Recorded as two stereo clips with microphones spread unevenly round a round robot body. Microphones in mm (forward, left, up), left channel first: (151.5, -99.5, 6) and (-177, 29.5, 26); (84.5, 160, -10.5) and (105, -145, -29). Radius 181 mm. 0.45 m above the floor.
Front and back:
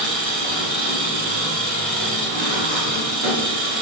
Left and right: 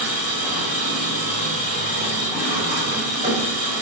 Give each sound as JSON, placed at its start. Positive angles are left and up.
{"t": 0.0, "sound": "an engine running", "azimuth_deg": -155, "distance_m": 1.0}